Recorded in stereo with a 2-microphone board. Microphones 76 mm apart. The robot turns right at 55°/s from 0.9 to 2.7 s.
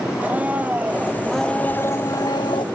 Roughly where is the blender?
Ahead.